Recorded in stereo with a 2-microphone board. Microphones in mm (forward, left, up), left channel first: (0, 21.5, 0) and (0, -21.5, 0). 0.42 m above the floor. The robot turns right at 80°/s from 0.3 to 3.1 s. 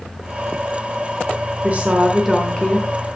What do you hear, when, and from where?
1.6 s a woman speaking: 55° right, 1.2 m; by 3.2 s 60° left, 1.2 m